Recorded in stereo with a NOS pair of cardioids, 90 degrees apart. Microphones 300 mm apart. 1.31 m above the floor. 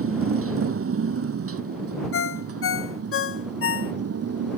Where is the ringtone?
45° left.